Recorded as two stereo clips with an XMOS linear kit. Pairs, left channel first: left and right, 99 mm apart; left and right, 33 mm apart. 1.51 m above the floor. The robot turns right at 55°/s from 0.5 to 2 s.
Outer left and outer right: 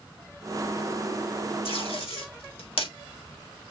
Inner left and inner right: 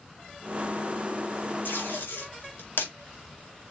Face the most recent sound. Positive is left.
turn(degrees=75)  # may be behind; listen again after turning